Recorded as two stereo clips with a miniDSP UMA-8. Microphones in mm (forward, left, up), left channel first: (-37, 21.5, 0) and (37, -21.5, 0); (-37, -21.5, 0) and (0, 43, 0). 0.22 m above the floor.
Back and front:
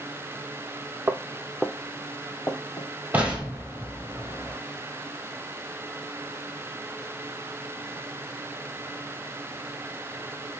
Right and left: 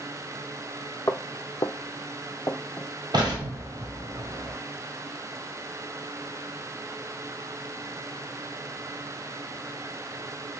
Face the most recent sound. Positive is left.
turn(degrees=40)